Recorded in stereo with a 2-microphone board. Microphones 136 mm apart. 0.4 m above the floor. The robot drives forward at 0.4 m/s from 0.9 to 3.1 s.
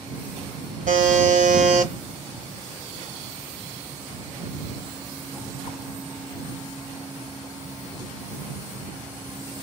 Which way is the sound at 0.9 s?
70° right (ahead or behind).